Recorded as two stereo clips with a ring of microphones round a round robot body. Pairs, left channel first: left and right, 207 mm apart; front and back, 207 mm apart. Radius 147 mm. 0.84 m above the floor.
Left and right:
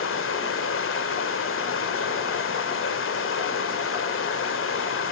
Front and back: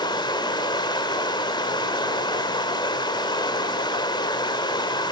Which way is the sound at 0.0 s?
70° left.